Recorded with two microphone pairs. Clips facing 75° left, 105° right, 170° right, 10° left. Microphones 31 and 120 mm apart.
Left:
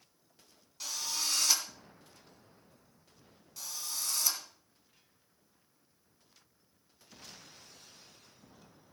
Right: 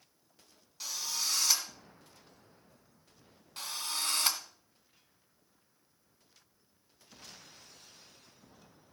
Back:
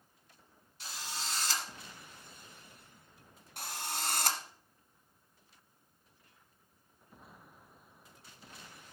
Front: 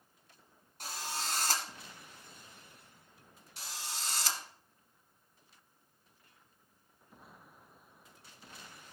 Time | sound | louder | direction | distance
0.8 | a drill | even, front 3 dB | 20° right | 2 m
3.6 | a drill | right 4 dB, back 5 dB | 145° right | 1.0 m